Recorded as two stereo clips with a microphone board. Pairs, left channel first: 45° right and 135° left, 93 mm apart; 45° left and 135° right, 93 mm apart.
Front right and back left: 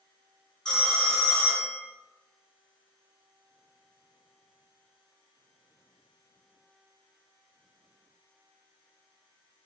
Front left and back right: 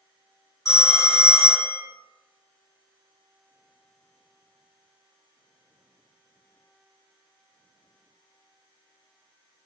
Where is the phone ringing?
30° left, 0.7 m.